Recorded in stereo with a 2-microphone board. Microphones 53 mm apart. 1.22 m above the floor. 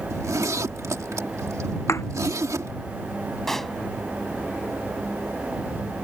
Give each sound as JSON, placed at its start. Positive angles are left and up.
{"t": 0.1, "sound": "a zipper", "side_deg": -85}
{"t": 1.9, "sound": "a thud", "side_deg": 60}
{"t": 3.5, "sound": "a pop", "side_deg": 5}